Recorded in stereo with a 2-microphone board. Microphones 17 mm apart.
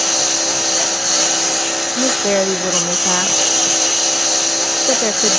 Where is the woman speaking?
75° left (ahead or behind).